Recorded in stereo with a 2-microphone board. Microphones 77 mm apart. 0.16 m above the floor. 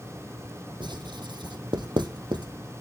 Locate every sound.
0.8 s writing: 80° right, 1.2 m